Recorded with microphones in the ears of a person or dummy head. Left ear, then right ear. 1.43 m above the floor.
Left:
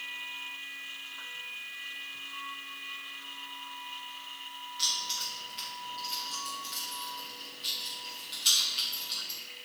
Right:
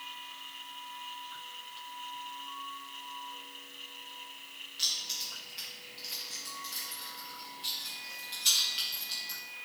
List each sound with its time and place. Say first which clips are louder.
4.8 s keys jangling: left 2 dB; 5° right (ahead or behind), 2 m